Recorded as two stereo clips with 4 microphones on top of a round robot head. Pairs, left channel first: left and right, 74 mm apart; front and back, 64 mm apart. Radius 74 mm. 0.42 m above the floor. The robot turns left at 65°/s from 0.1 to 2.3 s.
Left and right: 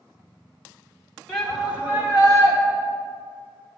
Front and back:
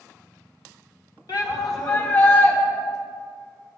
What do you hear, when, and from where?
1.3 s a shout: 10° left, 3 m; by 2.6 s 55° right, 3 m